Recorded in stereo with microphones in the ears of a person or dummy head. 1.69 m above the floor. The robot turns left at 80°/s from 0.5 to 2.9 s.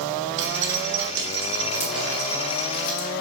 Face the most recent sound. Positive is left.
turn(degrees=70)  # may be behind; listen again after turning